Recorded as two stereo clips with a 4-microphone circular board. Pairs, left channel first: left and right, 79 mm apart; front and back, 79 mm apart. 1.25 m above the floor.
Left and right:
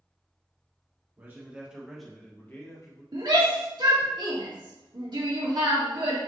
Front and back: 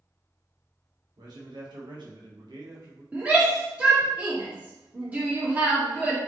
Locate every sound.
1.2 s a man speaking: 150° right, 1.6 m; by 3.0 s 130° left, 1.3 m
3.1 s a shout: 110° right, 1.7 m